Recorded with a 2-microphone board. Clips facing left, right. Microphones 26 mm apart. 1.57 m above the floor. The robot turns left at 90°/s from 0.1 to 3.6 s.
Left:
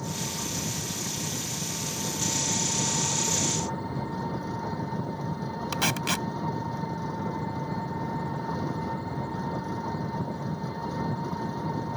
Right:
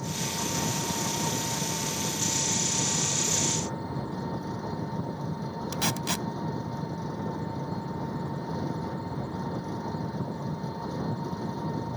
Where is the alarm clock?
No alarm clock in this recording.